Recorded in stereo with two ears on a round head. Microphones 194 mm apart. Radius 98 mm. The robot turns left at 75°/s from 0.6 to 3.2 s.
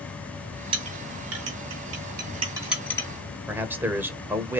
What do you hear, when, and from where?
0.7 s a clink: 25° right (ahead or behind), 3 m; by 3.1 s 20° left (ahead or behind), 3 m
3.5 s a man speaking: 10° right (ahead or behind), 1.2 m